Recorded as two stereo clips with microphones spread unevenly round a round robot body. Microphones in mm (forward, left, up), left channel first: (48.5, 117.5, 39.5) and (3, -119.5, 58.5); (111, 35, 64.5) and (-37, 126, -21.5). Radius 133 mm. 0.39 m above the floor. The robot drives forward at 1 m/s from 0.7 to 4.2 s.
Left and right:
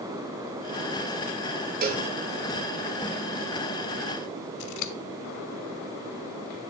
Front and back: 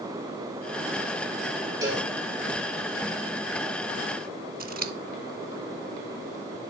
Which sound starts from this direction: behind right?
A cowbell, at 1.8 s.